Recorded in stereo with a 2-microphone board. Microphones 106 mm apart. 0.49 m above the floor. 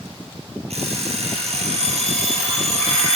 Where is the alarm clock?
90° right, 5 m.